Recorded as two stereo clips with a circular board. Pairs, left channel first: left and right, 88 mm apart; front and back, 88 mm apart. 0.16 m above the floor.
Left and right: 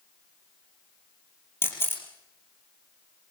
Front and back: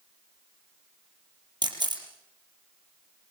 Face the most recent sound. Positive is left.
turn(degrees=150)